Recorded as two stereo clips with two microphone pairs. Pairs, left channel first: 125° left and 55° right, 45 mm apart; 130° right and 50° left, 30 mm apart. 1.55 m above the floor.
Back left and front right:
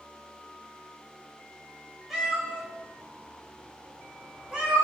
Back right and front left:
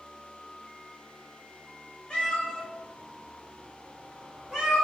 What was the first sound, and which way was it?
A cat meowing, 130° right.